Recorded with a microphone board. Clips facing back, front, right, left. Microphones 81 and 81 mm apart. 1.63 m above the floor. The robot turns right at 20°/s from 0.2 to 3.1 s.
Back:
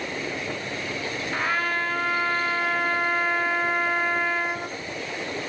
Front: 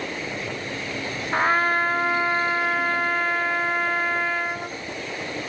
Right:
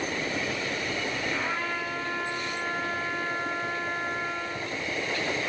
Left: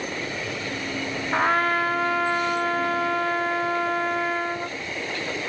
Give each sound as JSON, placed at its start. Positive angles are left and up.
{"t": 1.3, "sound": "a trumpet", "azimuth_deg": 55, "distance_m": 0.7}